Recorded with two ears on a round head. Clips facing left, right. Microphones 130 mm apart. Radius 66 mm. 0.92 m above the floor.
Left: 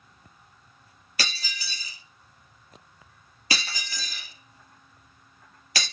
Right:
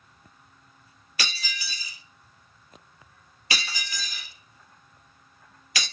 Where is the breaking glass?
35° left (ahead or behind), 1.4 m.